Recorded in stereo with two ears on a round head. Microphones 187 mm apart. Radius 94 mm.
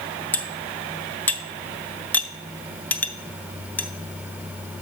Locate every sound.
0.3 s cutlery clinking: 10° left (ahead or behind), 0.7 m